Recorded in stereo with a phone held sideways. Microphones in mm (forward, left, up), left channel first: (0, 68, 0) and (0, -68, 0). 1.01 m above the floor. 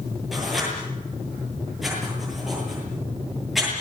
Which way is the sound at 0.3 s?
Centre (ahead or behind).